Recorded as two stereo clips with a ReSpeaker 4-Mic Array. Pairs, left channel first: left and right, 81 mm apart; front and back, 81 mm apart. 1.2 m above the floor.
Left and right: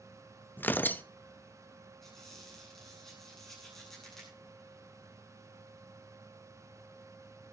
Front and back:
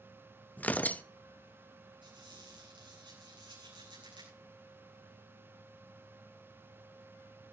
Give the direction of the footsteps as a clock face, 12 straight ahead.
I don't hear footsteps.